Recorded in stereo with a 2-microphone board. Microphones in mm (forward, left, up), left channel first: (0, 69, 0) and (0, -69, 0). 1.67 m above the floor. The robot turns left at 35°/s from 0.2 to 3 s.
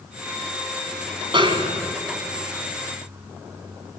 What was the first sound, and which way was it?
A snare drum, 35° right (ahead or behind).